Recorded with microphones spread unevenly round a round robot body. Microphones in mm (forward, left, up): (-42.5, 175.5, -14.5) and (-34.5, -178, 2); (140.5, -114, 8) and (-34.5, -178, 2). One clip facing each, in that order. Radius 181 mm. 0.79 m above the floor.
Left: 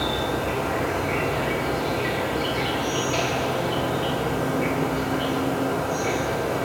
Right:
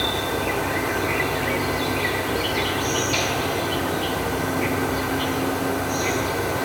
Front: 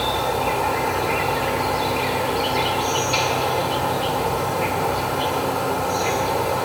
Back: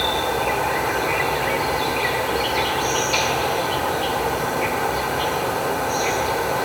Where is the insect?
75° right, 1.5 m.